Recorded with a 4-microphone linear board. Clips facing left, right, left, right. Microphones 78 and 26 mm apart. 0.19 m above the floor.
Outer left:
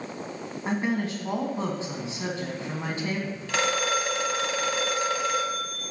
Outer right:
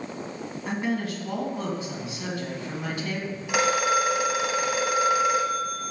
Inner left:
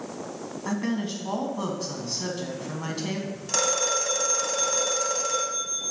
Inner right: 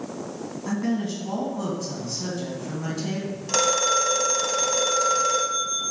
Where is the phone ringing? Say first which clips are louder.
Outer right 4 dB, inner right 4 dB; 15° right (ahead or behind), 1.0 m.